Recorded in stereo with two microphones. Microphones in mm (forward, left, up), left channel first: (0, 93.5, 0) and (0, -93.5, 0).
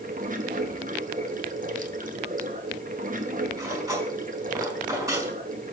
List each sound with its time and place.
0.0 s running water: 45° right (ahead or behind), 0.9 m
3.6 s cutlery clinking: 15° right (ahead or behind), 6 m